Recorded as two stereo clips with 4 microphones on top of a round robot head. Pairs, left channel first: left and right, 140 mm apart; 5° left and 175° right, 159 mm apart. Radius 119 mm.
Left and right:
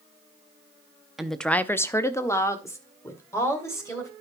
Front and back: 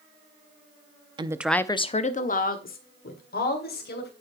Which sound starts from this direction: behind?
A woman speaking, at 1.2 s.